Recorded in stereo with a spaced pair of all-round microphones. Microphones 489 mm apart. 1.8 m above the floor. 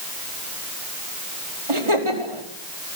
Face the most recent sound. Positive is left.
turn(degrees=-80)